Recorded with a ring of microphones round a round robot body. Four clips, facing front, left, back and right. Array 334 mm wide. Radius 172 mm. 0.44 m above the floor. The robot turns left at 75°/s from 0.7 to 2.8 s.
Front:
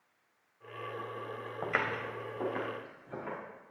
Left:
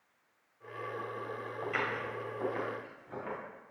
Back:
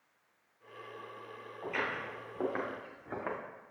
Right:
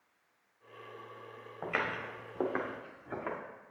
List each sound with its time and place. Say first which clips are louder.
1.6 s footsteps: even, front 2 dB; 20° right, 1.8 m; by 3.4 s 150° right, 2.5 m